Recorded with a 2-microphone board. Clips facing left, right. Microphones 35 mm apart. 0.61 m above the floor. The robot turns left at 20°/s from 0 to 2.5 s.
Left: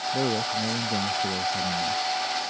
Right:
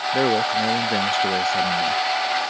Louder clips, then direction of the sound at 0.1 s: Right 8 dB; 60° right.